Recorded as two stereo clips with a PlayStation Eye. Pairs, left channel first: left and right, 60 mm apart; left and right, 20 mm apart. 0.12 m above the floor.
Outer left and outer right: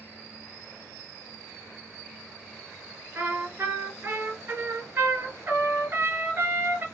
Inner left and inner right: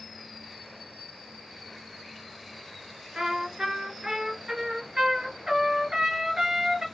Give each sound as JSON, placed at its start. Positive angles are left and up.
{"t": 3.1, "sound": "a trumpet", "side_deg": -35, "distance_m": 1.8}